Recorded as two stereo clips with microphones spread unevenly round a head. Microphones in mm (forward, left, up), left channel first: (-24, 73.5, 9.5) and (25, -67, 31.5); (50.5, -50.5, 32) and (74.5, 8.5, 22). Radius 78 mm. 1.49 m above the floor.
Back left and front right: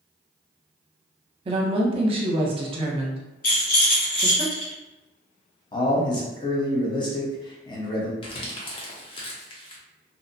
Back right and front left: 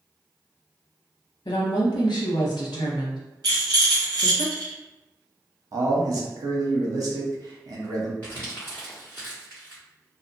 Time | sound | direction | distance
1.4 | a woman speaking | 125° right | 0.7 m
3.4 | a rattle | 75° left | 1.3 m
5.7 | a man speaking | 50° left | 0.9 m
8.2 | crumpling | 170° left | 0.7 m